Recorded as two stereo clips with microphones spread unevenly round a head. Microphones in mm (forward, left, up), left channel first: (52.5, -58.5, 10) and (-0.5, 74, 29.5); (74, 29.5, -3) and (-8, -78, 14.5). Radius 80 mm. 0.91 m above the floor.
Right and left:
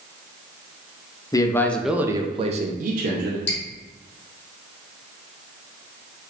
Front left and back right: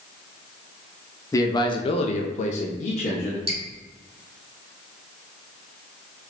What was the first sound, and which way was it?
A man speaking, 10° right.